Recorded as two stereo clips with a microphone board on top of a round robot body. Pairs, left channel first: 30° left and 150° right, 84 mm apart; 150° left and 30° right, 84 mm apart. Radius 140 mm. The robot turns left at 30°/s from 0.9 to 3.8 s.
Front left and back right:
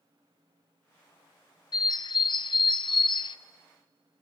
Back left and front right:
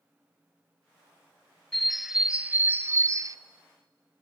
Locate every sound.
1.7 s a bird: 65° left, 0.5 m; by 3.4 s 15° left, 0.5 m